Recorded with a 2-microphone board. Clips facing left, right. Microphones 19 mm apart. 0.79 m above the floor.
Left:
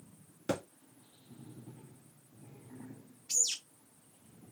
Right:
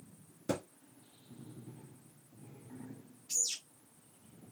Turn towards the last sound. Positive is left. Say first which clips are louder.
# left 3 dB
turn(degrees=75)  # may be behind; listen again after turning